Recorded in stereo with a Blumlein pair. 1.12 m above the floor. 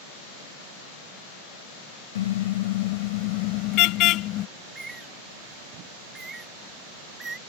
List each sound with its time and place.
2.1 s a car horn: 60° left; by 4.5 s 35° left
4.6 s a bird: 15° right